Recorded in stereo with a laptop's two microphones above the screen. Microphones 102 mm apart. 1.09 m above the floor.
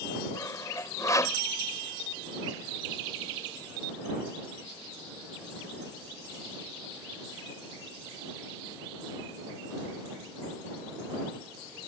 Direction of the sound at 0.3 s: 30° left (ahead or behind).